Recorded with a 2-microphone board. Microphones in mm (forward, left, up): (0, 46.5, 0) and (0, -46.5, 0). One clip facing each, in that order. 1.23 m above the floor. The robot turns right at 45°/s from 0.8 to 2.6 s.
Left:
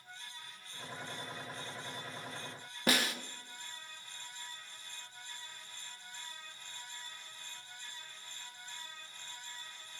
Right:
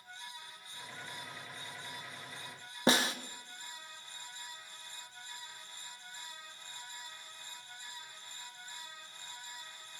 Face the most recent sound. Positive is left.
turn(degrees=-25)  # may be behind; listen again after turning